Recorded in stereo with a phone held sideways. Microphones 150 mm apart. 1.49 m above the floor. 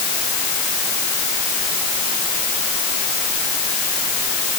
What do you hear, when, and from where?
Only background noise.